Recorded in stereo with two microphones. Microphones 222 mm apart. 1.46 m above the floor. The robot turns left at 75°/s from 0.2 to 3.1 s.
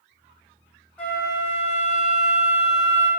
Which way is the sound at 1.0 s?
170° left.